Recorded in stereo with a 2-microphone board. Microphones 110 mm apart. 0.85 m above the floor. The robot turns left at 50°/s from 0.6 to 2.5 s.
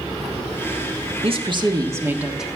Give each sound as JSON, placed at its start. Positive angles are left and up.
{"t": 1.2, "sound": "a woman speaking", "azimuth_deg": -115, "distance_m": 1.5}